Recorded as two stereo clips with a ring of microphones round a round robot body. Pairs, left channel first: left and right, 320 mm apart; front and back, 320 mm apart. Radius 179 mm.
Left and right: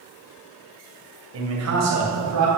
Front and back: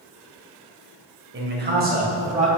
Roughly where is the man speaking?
Behind right.